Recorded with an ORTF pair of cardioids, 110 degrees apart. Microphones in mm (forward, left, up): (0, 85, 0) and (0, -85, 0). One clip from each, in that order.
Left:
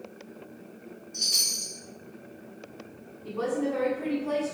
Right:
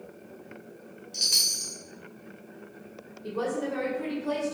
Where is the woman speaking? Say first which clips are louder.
Left 1 dB; 70° right, 2 m.